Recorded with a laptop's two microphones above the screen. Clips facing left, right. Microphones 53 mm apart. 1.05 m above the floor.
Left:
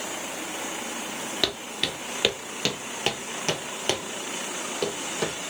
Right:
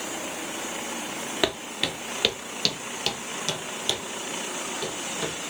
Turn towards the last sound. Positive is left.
turn(degrees=65)  # may be behind; listen again after turning